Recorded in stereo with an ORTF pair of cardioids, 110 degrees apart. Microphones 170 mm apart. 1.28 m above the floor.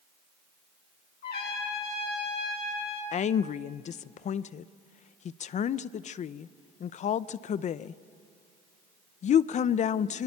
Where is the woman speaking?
45° left, 0.6 m.